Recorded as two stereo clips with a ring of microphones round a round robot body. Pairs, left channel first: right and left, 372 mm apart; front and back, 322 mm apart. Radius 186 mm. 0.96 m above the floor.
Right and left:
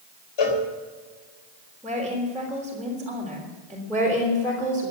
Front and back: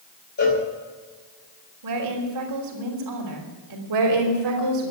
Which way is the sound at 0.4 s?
65° right.